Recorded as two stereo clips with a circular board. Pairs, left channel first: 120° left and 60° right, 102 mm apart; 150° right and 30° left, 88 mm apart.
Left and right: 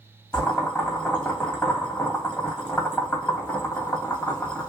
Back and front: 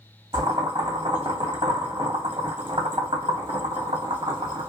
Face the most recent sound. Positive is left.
turn(degrees=45)